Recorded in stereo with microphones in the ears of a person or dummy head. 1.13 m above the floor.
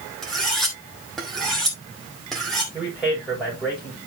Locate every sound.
0.2 s cutlery clinking: centre (ahead or behind), 2.5 m
2.7 s a man speaking: centre (ahead or behind), 6 m